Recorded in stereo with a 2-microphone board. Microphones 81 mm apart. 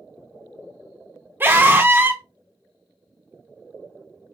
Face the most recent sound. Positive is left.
turn(degrees=-25)  # may be behind; listen again after turning